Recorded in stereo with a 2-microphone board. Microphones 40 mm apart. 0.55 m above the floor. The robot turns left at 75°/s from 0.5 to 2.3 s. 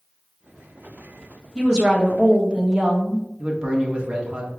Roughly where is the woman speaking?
Centre.